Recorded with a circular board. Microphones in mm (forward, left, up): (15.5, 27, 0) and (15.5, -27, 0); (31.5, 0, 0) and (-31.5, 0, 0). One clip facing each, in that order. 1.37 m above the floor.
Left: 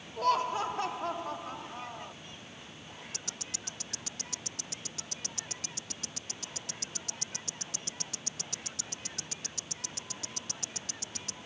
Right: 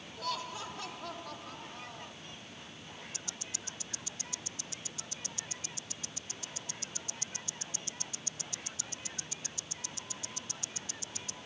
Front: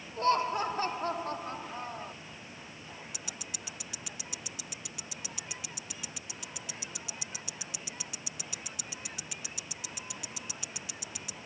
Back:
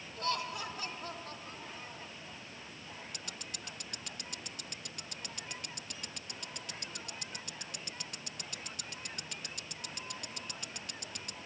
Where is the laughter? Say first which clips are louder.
Left 11 dB, front 9 dB; 55° left; by 2.1 s 25° left.